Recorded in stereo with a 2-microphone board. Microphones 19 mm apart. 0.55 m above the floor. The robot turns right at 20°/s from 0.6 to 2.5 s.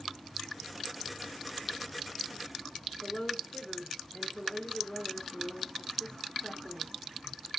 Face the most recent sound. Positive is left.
turn(degrees=35)  # may be behind; listen again after turning